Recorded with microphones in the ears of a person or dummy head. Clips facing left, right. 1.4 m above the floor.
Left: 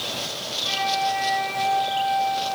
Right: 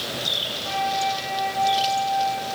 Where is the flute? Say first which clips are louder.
Even; 50° left (ahead or behind), 4.5 m.